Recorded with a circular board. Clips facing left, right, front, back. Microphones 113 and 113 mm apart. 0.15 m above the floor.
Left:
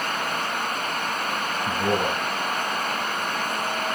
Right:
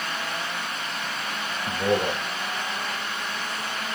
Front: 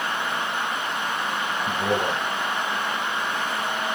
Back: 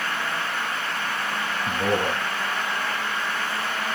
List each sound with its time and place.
1.7 s a man speaking: 140° left, 2 m